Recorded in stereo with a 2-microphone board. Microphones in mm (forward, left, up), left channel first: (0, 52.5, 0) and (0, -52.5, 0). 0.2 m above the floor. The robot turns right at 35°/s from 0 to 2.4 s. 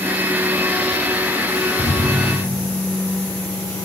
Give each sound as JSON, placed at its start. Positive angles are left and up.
{"t": 1.8, "sound": "a thud", "side_deg": 85, "distance_m": 4.0}